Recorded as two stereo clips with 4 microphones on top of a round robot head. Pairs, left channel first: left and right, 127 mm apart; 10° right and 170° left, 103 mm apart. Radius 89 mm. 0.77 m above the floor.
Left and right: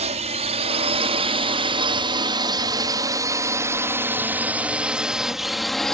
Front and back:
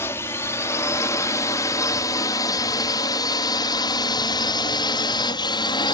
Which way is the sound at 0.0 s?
75° right.